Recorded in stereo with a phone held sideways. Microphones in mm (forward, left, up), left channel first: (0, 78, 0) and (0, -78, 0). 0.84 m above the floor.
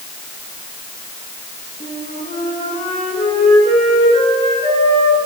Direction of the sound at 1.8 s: 50° left (ahead or behind).